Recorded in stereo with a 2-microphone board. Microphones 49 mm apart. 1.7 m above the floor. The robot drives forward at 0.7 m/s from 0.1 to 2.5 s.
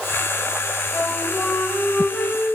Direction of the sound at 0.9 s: 70° left (ahead or behind).